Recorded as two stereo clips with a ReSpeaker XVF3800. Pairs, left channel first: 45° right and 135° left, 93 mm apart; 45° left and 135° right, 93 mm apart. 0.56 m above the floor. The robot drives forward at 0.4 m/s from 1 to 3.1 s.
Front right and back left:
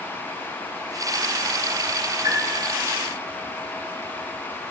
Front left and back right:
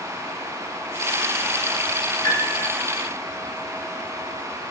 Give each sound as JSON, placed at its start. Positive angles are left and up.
{"t": 2.2, "sound": "a piano", "azimuth_deg": 90, "distance_m": 2.5}